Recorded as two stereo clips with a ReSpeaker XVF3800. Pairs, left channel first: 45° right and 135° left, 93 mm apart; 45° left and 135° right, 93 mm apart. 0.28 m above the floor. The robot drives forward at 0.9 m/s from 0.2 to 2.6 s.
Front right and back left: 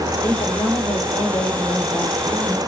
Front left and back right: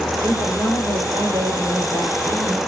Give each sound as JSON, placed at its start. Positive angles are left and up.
{"t": 0.2, "sound": "a woman speaking", "azimuth_deg": -80, "distance_m": 9.0}